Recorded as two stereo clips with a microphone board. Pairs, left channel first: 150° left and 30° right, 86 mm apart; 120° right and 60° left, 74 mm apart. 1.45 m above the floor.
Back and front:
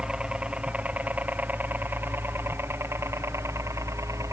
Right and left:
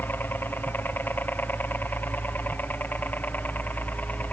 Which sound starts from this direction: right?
A helicopter, at 0.0 s.